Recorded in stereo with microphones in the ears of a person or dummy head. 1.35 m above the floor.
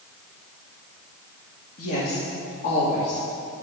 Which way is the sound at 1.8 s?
55° left (ahead or behind).